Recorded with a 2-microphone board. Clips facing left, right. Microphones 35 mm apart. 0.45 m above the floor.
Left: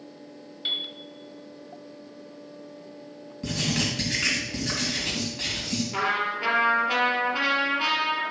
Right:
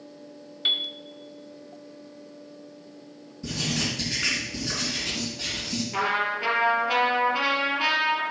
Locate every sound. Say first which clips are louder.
0.7 s a piano: right 4 dB; 25° right (ahead or behind), 0.7 m
3.4 s writing: left 1 dB; 50° left (ahead or behind), 3.5 m
5.9 s a trumpet: right 1 dB; centre (ahead or behind), 3 m